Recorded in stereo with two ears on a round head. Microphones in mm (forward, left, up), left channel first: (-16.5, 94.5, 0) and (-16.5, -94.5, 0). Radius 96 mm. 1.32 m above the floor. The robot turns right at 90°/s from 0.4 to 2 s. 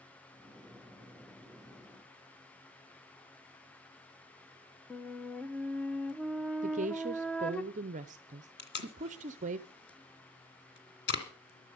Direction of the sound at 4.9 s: 5° left (ahead or behind).